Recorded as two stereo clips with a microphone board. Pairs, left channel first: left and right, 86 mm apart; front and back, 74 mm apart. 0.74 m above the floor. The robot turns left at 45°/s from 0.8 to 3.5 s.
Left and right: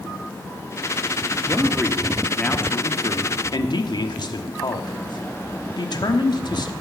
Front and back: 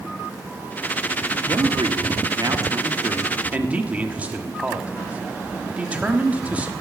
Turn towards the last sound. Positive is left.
turn(degrees=115)